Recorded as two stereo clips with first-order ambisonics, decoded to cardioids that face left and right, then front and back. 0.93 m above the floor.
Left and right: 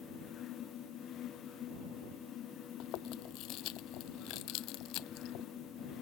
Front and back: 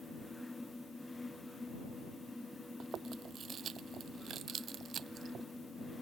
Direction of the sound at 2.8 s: 120° left.